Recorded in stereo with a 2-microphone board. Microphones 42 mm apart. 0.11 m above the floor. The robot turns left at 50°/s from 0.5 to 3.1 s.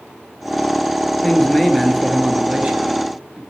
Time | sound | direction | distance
1.2 | a man speaking | 25° left | 1.4 m